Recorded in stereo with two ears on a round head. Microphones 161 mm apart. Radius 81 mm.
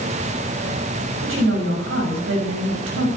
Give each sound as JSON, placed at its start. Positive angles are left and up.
{"t": 1.2, "sound": "a woman speaking", "side_deg": -80, "distance_m": 5.0}